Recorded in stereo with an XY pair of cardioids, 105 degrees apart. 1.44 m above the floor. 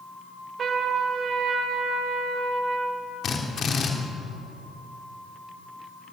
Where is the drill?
50° left, 3 m.